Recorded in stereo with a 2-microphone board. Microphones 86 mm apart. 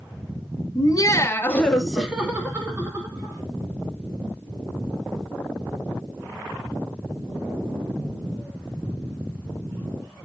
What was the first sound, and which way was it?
Laughter, 45° left (ahead or behind).